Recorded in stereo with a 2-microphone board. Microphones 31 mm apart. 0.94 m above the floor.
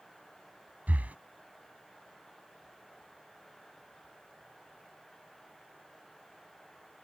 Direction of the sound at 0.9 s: 55° right (ahead or behind).